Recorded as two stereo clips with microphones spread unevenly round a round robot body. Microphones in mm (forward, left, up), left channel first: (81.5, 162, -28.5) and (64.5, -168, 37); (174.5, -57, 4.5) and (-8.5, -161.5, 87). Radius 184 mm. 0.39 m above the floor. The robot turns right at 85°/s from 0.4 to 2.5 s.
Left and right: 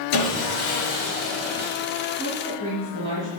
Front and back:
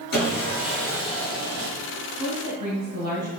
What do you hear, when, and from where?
0.1 s sawing: 80° left, 5 m; by 1.7 s 170° right, 5 m
2.1 s a woman speaking: 170° left, 2.5 m; by 3.3 s 160° right, 2.5 m